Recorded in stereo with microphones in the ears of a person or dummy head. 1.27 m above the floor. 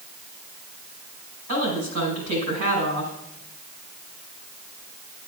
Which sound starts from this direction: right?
A woman speaking, at 1.5 s.